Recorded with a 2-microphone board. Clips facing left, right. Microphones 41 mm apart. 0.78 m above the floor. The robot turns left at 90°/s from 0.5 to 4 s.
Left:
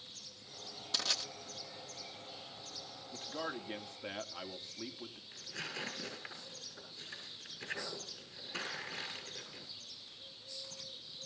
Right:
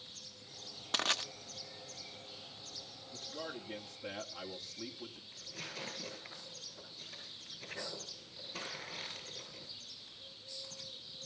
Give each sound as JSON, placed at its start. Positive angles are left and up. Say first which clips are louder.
{"t": 0.9, "sound": "crushing", "louder": "right 4 dB", "side_deg": -45, "distance_m": 1.2}
{"t": 3.1, "sound": "a man speaking", "louder": "left 3 dB", "azimuth_deg": 110, "distance_m": 2.0}
{"t": 5.3, "sound": "tearing paper", "louder": "left 5 dB", "side_deg": 70, "distance_m": 7.0}